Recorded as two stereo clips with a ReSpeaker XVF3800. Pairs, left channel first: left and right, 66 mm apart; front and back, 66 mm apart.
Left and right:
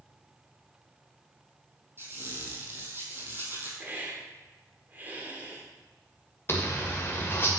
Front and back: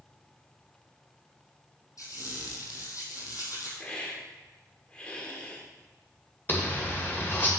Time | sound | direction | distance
2.0 | a squeak | 35° right | 2 m
3.8 | a hiss | 60° right | 1.5 m
6.5 | a zipper | 45° left | 2 m